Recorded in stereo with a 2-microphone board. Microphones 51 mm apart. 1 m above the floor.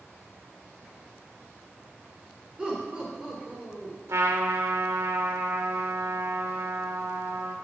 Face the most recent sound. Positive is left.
turn(degrees=-80)